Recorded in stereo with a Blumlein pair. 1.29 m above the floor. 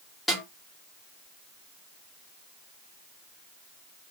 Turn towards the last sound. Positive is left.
turn(degrees=0)